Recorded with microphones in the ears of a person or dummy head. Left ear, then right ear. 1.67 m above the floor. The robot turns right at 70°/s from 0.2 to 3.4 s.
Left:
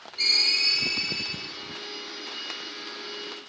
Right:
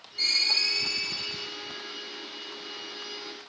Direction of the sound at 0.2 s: 140° right.